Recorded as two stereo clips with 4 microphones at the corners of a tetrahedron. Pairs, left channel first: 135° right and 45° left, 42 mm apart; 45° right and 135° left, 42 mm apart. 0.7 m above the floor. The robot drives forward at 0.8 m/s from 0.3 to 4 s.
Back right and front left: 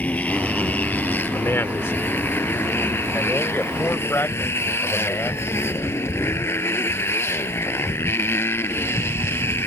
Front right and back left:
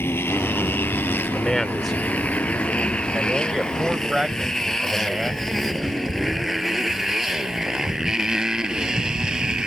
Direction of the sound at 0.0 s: 80° right.